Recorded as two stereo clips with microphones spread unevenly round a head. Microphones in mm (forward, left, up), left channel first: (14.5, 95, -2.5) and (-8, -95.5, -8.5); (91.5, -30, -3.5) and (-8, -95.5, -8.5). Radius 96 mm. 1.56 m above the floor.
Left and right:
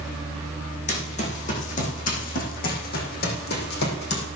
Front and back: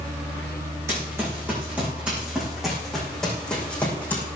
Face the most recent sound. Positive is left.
turn(degrees=110)